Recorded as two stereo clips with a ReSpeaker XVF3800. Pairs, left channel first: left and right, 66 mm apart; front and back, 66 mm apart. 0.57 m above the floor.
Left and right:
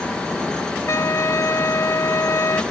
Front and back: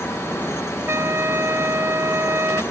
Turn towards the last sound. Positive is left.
turn(degrees=130)